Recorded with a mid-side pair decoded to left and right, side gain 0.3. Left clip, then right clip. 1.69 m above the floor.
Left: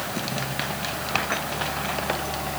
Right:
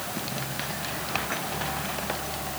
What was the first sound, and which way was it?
Only background noise.